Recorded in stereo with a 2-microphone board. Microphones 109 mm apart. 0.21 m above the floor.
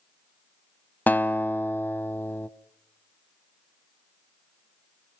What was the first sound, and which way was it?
A guitar, 15° left (ahead or behind).